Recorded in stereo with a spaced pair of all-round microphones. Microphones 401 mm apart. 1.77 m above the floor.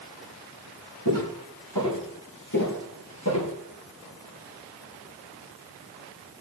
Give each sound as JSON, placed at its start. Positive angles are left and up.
{"t": 1.1, "sound": "footsteps", "side_deg": 60, "distance_m": 4.5}